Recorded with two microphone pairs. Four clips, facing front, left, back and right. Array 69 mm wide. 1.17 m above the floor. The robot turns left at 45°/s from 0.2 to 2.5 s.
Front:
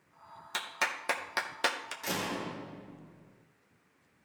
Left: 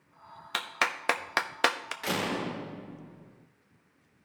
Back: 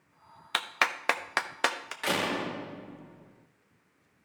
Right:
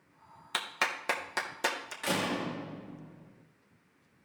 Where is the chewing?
I don't hear chewing.